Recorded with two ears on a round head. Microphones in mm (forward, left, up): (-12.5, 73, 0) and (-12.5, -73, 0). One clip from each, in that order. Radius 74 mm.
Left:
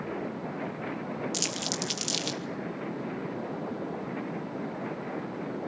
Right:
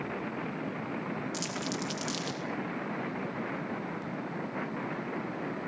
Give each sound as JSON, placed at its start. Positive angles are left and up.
{"t": 1.3, "sound": "crumpling", "side_deg": 40, "distance_m": 2.5}